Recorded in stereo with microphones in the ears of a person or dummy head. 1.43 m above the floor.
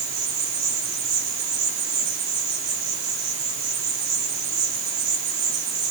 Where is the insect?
75° right (ahead or behind), 4.5 m.